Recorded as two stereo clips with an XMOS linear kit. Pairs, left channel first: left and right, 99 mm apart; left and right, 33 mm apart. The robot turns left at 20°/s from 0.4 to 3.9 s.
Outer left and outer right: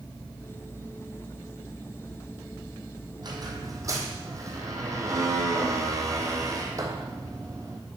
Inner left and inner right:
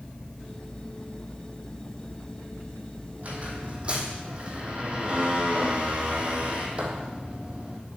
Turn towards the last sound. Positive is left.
turn(degrees=-35)  # may be behind; listen again after turning